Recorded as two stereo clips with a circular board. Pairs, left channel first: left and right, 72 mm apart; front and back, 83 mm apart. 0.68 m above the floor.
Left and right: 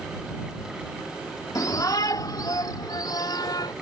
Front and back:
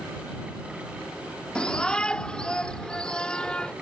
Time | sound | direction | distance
1.6 | a shout | 75° left | ?